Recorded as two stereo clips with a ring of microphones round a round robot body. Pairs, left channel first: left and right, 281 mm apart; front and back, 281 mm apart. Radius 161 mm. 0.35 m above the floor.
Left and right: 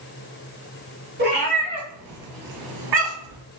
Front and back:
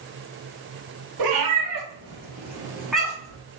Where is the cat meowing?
155° right, 1.3 m; by 3.4 s 80° right, 1.4 m.